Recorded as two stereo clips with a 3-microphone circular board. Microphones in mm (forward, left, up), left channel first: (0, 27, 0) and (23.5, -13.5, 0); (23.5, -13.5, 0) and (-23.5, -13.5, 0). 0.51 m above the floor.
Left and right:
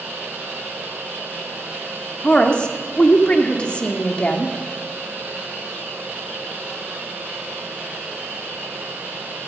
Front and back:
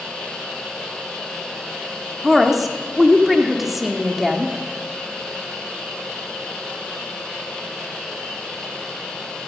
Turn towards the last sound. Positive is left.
turn(degrees=100)